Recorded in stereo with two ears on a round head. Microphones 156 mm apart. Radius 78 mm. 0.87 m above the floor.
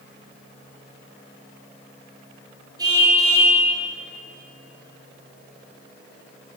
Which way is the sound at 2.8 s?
20° right (ahead or behind).